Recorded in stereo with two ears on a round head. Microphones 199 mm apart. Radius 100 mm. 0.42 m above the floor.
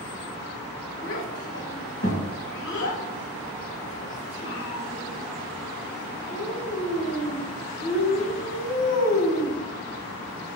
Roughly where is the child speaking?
Left.